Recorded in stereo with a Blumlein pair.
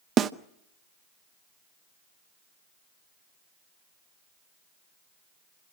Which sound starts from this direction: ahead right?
A snare drum, at 0.2 s.